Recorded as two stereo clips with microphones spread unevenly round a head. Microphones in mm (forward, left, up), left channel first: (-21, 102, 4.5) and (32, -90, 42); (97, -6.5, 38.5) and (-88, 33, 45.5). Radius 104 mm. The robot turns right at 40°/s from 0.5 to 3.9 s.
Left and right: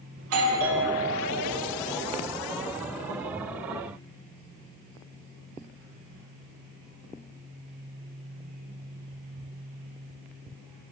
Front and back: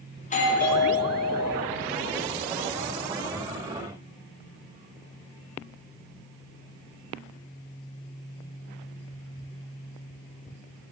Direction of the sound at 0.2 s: 65° right.